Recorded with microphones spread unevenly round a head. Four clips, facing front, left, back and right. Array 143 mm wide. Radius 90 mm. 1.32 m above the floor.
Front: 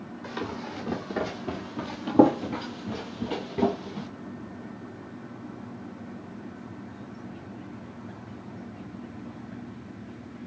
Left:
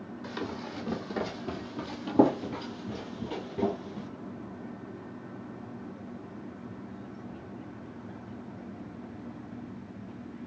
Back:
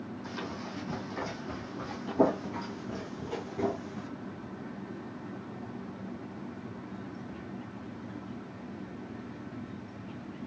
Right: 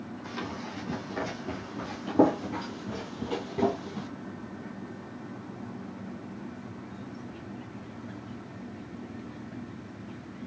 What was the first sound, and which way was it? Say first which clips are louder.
Running footsteps: left 1 dB, front 7 dB; 20° left.